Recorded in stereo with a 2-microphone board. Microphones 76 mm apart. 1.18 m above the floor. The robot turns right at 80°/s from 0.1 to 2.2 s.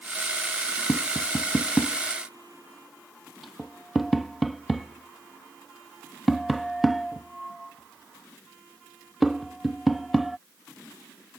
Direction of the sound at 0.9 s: 25° left (ahead or behind).